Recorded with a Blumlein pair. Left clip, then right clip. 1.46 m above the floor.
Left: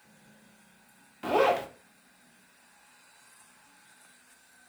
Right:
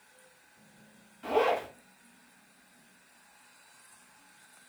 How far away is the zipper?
About 0.5 m.